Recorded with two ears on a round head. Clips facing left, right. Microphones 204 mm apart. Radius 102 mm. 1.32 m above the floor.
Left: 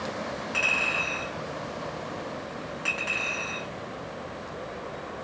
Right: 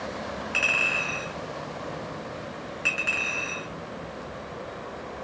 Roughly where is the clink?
Centre.